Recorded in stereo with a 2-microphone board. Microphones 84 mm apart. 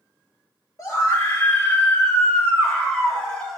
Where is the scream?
40° left (ahead or behind), 2.5 m; by 3.6 s 10° left (ahead or behind), 4 m.